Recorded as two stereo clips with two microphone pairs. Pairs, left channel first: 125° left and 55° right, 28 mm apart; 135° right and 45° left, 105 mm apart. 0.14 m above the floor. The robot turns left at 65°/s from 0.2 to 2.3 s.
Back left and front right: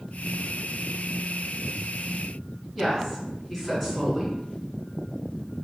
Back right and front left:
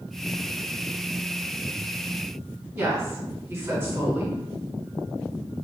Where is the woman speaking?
60° left, 1.3 m.